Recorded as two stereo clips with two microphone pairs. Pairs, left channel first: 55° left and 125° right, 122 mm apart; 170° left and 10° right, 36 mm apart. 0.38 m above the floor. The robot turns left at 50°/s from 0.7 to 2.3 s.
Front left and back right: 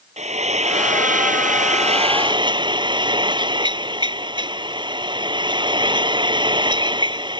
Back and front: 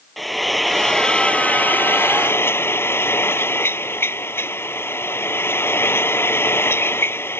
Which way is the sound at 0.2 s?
100° right.